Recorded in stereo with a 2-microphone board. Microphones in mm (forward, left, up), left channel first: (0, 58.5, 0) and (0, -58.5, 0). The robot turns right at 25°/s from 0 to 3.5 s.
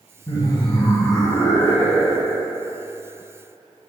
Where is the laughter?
110° left, 1.4 m; by 2.5 s 165° left, 1.4 m.